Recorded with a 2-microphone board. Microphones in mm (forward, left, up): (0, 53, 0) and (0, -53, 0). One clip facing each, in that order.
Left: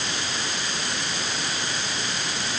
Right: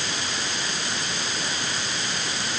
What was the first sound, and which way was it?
Only background noise.